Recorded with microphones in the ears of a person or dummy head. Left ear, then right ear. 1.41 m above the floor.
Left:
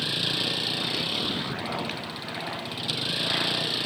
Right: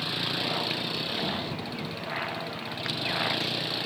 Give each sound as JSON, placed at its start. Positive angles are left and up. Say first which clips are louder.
{"t": 0.0, "sound": "a vehicle", "louder": "left 3 dB", "side_deg": 15}